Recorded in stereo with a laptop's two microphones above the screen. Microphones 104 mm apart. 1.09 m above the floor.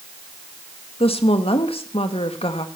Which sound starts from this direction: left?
A woman speaking, at 1.0 s.